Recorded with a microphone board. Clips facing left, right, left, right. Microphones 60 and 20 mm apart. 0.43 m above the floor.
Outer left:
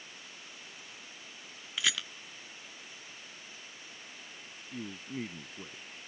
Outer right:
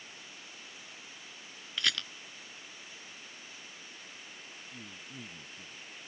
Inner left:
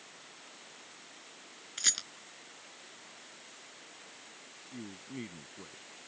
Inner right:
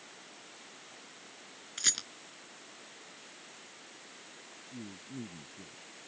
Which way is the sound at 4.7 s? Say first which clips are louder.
Outer left 11 dB, inner left 1 dB; 60° left (ahead or behind).